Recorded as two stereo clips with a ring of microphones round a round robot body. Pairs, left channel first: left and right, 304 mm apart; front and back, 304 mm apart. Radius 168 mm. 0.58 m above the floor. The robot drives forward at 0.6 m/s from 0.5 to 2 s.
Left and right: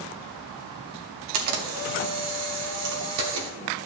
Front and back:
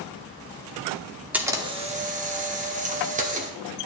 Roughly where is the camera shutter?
Right.